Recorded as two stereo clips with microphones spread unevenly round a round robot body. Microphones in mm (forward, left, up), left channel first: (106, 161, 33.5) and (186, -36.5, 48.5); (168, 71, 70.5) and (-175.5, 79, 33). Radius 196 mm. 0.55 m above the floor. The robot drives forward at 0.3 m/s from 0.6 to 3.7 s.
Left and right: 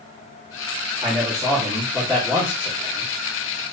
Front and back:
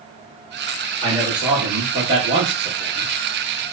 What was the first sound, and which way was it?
A man speaking, 105° right.